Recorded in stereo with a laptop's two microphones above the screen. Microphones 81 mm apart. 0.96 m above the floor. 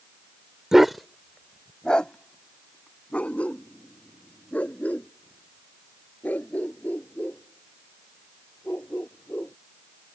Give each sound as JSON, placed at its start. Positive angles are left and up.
{"t": 0.7, "sound": "a dog barking", "side_deg": -5}